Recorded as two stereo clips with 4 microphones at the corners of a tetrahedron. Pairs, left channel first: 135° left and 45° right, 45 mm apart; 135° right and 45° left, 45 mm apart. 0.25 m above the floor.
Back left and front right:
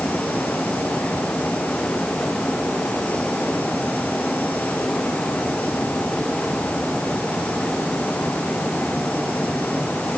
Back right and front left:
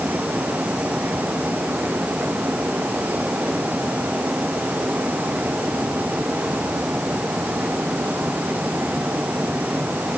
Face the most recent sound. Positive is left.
No sound to turn to.